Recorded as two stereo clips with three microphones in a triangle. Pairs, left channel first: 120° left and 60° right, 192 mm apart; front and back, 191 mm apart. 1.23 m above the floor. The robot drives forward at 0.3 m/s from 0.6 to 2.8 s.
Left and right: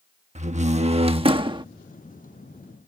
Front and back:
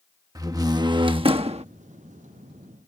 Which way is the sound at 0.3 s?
110° right.